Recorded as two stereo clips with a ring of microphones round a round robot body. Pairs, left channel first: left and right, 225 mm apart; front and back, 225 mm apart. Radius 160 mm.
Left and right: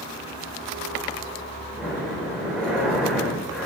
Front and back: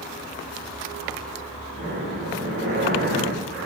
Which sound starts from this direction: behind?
Breathing, at 1.8 s.